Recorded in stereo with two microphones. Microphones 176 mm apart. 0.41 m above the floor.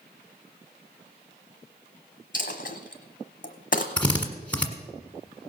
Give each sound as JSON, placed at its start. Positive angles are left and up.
{"t": 2.3, "sound": "a dropped coin", "side_deg": 50, "distance_m": 1.3}
{"t": 4.0, "sound": "a drill", "side_deg": 10, "distance_m": 1.4}